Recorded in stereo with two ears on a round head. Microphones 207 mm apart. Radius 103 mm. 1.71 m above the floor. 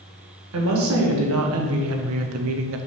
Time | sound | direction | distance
0.5 | a woman speaking | 65° right (ahead or behind) | 1.8 m